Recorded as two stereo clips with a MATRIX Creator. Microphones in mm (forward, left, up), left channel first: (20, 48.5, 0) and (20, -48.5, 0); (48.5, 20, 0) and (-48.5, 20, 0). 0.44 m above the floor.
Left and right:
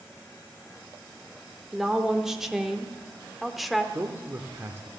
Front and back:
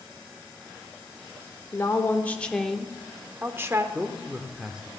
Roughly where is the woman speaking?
Ahead.